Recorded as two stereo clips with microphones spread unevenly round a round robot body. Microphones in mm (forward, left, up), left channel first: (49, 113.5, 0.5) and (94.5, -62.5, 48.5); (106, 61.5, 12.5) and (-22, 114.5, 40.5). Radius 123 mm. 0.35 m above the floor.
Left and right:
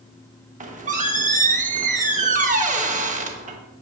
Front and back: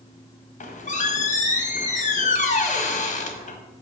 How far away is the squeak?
About 1.6 m.